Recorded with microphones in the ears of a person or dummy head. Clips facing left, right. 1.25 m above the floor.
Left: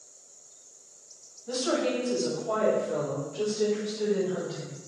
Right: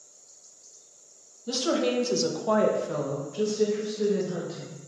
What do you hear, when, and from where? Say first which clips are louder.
1.5 s a woman speaking: right 2 dB; 50° right (ahead or behind), 0.9 m; by 4.8 s 25° right (ahead or behind), 1.3 m